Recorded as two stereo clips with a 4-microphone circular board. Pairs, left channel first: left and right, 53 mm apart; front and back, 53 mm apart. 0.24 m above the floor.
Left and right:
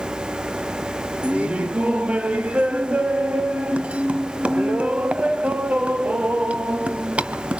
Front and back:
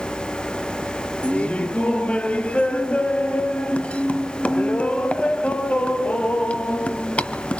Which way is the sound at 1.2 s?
45° right.